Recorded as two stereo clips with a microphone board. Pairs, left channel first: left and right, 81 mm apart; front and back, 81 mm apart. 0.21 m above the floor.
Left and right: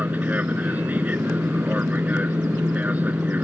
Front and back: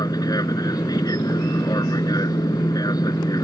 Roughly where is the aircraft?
Ahead right.